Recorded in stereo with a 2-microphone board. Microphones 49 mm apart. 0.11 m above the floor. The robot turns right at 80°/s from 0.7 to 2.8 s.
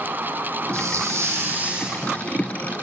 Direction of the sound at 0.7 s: 110° right.